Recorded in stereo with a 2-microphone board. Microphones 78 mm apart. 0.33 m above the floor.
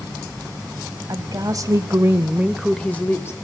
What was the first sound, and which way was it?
A woman speaking, 55° right (ahead or behind).